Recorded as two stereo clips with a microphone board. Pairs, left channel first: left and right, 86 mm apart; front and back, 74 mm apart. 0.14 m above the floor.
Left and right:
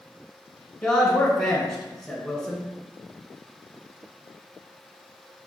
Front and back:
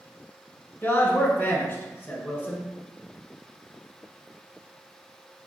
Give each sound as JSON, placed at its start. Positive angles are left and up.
{"t": 0.8, "sound": "a man speaking", "azimuth_deg": 10, "distance_m": 1.2}